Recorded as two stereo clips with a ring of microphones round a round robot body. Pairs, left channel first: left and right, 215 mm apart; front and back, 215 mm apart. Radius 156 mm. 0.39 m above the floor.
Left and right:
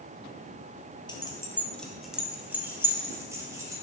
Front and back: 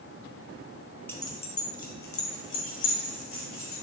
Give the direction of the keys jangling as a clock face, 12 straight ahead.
10 o'clock.